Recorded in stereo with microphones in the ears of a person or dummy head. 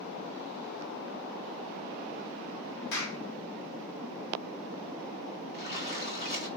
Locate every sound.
2.9 s a clap: 60° left (ahead or behind), 1.3 m
5.5 s a splash: 55° left (ahead or behind), 3.5 m